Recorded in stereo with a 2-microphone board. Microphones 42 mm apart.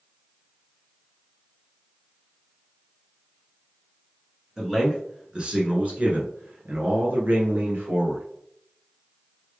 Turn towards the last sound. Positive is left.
turn(degrees=-55)  # may be behind; listen again after turning